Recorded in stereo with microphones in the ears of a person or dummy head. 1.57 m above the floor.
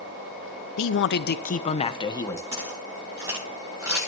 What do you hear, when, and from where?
0.8 s a man speaking: 75° left (ahead or behind), 0.9 m; by 2.4 s 15° left (ahead or behind), 1.4 m
2.5 s footsteps: 20° right (ahead or behind), 9.5 m; by 4.1 s 10° right (ahead or behind), 8.5 m